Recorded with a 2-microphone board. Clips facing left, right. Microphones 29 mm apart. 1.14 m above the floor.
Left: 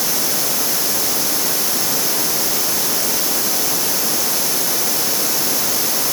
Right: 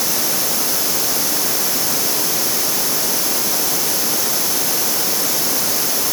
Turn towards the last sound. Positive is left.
No sound to turn to.